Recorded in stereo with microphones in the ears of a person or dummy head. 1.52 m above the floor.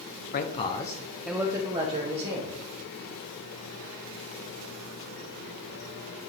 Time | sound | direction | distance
0.3 | a man speaking | 45° left (ahead or behind) | 0.7 m